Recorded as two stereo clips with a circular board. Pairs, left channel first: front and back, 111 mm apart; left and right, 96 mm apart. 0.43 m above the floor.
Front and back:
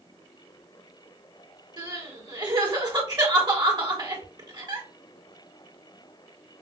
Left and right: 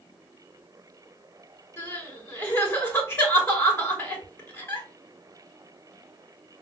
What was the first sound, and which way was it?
Crying, 150° left.